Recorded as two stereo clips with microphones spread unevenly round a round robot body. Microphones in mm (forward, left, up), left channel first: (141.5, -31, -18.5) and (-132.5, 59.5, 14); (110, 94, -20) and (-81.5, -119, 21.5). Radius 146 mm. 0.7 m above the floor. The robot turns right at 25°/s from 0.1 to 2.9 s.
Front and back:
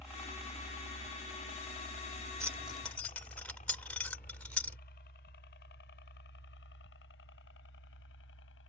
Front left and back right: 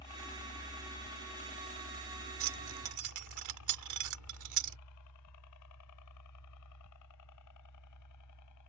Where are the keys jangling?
115° right; by 4.8 s 105° right.